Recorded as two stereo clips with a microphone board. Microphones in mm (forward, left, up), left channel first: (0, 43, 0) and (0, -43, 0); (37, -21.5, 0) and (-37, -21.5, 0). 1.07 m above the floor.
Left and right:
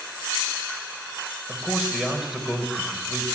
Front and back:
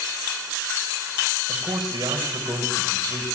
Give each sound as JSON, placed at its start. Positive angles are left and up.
{"t": 1.5, "sound": "a man speaking", "azimuth_deg": -175, "distance_m": 4.0}